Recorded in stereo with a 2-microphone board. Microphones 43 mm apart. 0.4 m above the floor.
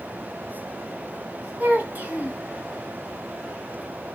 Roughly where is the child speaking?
Right.